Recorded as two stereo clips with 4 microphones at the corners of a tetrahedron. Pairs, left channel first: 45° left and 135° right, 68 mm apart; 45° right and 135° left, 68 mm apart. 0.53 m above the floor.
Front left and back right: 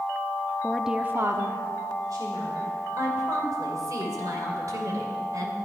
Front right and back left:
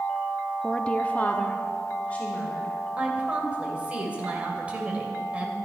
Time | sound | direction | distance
0.6 | a woman speaking | 15° left | 0.6 m
3.0 | a woman speaking | 160° right | 2.5 m